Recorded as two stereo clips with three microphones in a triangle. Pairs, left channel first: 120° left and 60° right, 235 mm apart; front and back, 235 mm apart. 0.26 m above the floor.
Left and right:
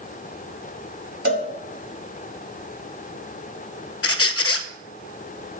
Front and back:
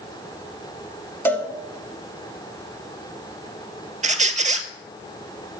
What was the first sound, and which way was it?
A cowbell, 80° right.